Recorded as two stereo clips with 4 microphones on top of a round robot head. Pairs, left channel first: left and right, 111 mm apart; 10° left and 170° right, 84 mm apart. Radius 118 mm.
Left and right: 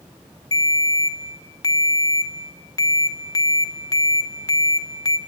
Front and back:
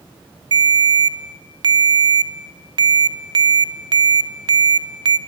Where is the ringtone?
150° left, 1.1 m.